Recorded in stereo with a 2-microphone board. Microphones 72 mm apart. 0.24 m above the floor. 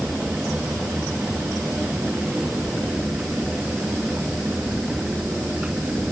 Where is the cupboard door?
No cupboard door in this recording.